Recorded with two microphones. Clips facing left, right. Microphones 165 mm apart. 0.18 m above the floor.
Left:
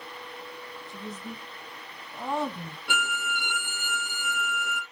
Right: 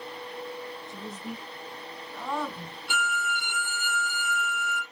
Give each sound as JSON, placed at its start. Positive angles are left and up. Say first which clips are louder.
{"t": 0.9, "sound": "a woman speaking", "louder": "right 1 dB", "side_deg": -20, "distance_m": 2.5}
{"t": 2.9, "sound": "a violin", "louder": "right 2 dB", "side_deg": 60, "distance_m": 2.0}